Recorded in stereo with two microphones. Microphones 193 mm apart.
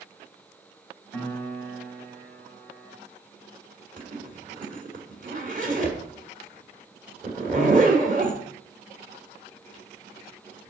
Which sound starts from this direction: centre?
A piano, at 1.1 s.